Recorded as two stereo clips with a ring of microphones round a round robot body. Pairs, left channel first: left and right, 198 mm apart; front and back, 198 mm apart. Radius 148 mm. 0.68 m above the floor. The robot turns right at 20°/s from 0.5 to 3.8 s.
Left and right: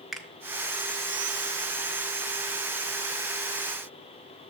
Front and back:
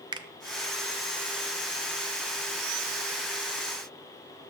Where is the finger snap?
Straight behind, 0.5 m.